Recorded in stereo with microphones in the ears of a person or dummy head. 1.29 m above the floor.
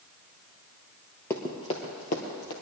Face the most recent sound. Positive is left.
turn(degrees=55)  # may be behind; listen again after turning